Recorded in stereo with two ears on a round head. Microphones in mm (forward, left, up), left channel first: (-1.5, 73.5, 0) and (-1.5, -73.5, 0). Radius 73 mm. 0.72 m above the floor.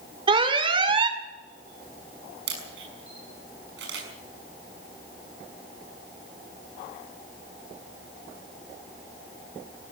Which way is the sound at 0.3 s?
30° right (ahead or behind).